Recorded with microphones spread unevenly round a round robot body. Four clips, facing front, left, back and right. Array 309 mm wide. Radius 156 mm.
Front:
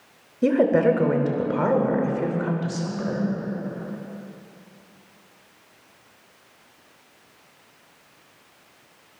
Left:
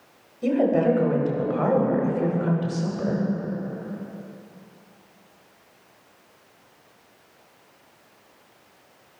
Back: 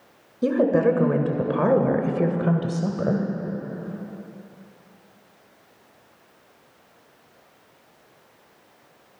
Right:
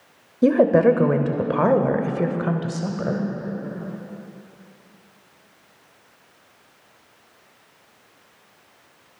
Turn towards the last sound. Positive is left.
turn(degrees=-170)